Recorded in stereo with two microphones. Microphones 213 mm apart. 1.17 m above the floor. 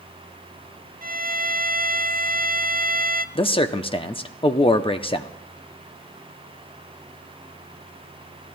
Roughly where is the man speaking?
Left.